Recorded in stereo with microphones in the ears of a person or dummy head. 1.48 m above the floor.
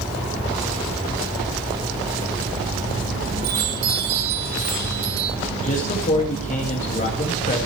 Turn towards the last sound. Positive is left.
turn(degrees=40)  # may be behind; listen again after turning